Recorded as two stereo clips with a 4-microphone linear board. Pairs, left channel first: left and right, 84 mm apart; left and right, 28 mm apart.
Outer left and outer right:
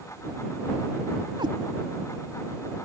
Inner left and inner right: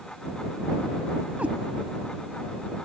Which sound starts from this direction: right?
A cat meowing, at 1.4 s.